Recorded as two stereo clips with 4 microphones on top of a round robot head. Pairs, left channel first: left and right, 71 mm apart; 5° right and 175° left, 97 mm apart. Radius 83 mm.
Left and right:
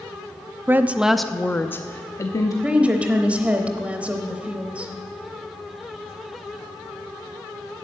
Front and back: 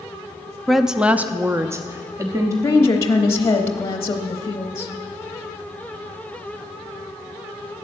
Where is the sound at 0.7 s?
95° right, 0.6 m; by 2.5 s 120° left, 1.0 m.